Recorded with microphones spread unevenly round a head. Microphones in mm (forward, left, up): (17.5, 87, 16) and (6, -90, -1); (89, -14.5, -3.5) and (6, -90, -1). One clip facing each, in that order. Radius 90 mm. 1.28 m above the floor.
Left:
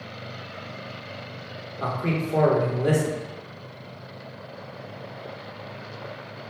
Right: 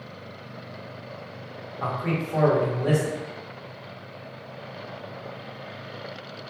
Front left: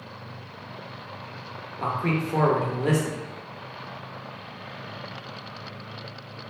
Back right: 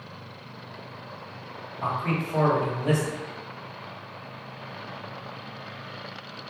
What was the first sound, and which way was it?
A man speaking, 25° left.